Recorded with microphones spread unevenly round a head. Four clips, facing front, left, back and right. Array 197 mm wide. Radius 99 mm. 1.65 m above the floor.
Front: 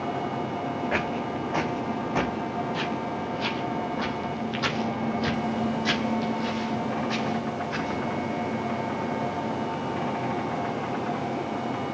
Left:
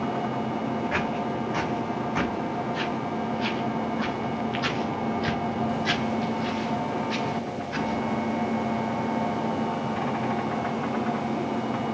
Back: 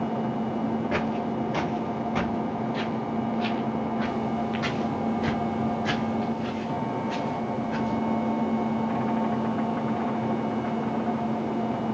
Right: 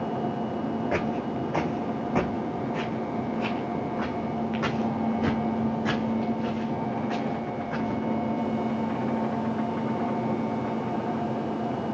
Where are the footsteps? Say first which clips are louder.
Even, back 1 dB; 65° right, 1.8 m; by 8.0 s 75° right, 5.5 m.